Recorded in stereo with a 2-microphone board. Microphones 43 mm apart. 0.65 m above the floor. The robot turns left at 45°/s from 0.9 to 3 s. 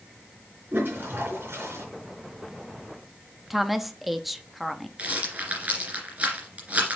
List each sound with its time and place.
0.7 s a toilet flushing: 55° right, 4 m; by 1.8 s 95° right, 4 m
3.5 s a woman speaking: 5° right (ahead or behind), 0.6 m
5.0 s a rattle: 35° right (ahead or behind), 2.5 m